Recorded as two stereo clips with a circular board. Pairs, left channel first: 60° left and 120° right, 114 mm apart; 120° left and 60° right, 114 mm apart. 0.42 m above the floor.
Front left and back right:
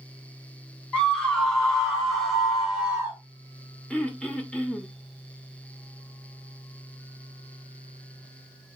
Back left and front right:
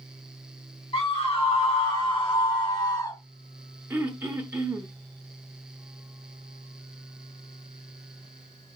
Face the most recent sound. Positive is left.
turn(degrees=-10)